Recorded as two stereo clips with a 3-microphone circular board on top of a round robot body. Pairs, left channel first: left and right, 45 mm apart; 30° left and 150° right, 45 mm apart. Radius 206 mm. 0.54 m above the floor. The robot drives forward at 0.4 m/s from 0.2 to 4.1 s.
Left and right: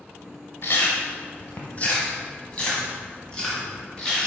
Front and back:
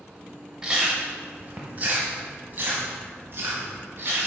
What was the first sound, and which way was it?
Chewing, 130° left.